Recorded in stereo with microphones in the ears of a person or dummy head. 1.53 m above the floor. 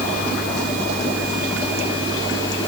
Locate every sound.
Only background noise.